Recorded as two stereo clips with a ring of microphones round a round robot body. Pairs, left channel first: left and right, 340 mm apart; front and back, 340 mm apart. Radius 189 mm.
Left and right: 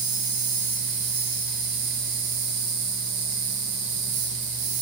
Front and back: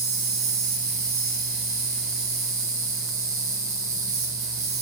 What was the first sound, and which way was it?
An insect, 130° right.